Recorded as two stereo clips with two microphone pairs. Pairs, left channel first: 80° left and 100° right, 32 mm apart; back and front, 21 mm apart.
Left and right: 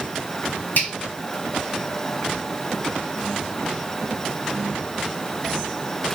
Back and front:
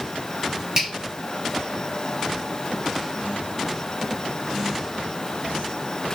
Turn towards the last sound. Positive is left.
turn(degrees=60)